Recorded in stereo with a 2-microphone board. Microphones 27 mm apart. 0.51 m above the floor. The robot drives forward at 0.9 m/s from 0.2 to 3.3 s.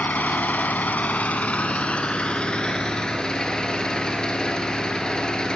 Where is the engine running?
75° left (ahead or behind), 1.3 m; by 5.5 s 25° left (ahead or behind), 3 m.